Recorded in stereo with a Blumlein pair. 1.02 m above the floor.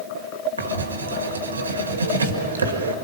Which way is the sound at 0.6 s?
70° right.